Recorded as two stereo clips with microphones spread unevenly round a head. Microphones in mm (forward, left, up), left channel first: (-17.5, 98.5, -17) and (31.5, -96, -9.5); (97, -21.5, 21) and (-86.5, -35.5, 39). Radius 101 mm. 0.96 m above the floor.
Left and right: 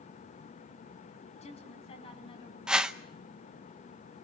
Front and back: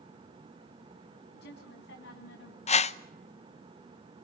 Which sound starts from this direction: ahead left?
A woman speaking, at 1.4 s.